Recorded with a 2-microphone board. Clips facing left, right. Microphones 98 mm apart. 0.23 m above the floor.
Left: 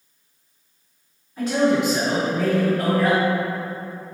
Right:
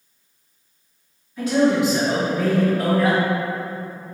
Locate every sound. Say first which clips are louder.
1.4 s a man speaking: right 1 dB; 30° left (ahead or behind), 1.6 m; by 3.2 s 20° right (ahead or behind), 1.4 m